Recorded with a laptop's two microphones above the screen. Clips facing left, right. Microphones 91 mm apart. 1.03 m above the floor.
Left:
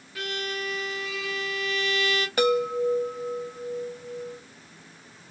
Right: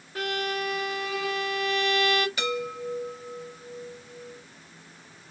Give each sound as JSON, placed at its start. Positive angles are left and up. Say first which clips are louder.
{"t": 0.1, "sound": "a violin", "louder": "right 3 dB", "side_deg": -40, "distance_m": 0.8}
{"t": 2.4, "sound": "a chime", "louder": "left 8 dB", "side_deg": 55, "distance_m": 0.9}